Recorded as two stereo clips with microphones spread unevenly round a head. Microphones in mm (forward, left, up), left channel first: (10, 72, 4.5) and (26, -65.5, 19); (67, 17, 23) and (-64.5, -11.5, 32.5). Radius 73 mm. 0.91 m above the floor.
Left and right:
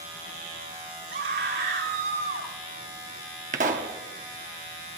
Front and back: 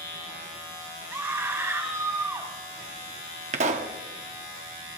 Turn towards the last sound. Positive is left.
turn(degrees=-125)